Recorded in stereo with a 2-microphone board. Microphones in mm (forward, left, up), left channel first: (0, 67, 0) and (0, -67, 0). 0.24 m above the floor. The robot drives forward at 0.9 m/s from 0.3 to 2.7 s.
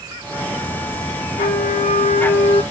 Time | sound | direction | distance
1.4 | a flute | 70° left (ahead or behind) | 3.5 m